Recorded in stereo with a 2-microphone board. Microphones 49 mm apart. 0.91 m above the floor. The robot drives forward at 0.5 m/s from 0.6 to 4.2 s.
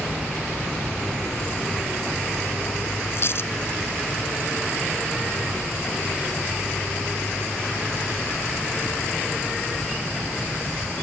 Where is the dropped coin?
55° left (ahead or behind).